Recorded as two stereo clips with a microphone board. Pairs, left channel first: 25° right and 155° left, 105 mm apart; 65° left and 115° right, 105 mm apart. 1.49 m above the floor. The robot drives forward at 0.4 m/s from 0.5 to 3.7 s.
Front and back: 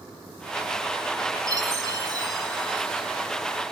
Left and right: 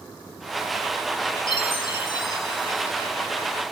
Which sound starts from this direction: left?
A chime, at 1.5 s.